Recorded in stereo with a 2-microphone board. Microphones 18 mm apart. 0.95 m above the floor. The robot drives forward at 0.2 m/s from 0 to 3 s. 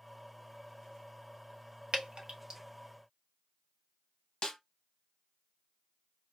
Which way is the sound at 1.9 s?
75° right (ahead or behind).